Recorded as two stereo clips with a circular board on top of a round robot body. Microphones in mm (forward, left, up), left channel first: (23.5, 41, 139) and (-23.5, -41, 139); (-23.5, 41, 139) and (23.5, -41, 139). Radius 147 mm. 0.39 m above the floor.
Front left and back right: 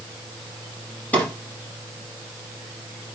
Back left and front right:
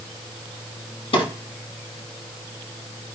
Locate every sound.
1.1 s a drawer: 130° left, 6.5 m